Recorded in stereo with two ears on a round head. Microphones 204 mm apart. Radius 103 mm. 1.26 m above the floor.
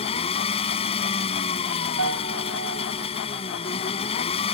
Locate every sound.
0.0 s an engine running: 25° left (ahead or behind)
2.0 s a piano: 70° right (ahead or behind)